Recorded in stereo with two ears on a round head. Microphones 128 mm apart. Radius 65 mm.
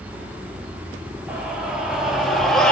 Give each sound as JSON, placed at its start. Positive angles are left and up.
{"t": 1.3, "sound": "a scream", "side_deg": -10, "distance_m": 4.5}